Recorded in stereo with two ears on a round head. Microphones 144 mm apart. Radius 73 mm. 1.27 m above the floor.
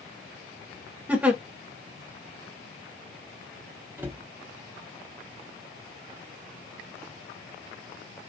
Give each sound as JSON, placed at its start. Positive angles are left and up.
{"t": 1.1, "sound": "a giggle", "side_deg": -10, "distance_m": 0.8}
{"t": 4.0, "sound": "a cupboard door", "side_deg": -15, "distance_m": 0.6}